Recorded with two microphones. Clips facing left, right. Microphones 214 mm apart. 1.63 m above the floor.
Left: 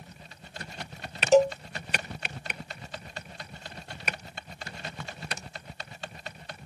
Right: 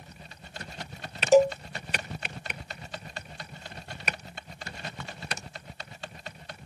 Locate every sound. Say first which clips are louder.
1.3 s a cowbell: right 1 dB; 10° right (ahead or behind)